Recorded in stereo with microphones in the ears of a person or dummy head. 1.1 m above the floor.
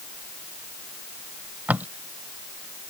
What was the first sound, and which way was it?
Tape being pulled, 5° right (ahead or behind).